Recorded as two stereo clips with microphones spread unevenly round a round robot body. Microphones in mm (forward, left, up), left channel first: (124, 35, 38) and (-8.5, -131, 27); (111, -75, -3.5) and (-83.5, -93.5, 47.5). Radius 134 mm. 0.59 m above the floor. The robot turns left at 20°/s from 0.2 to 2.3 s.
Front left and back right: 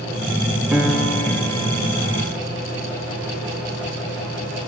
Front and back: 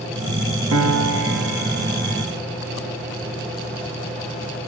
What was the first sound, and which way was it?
A piano, 145° left.